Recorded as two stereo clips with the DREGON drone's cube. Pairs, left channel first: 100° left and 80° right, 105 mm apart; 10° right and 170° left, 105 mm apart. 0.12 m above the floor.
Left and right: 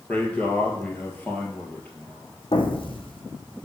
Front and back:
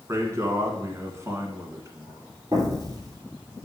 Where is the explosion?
115° left, 1.4 m.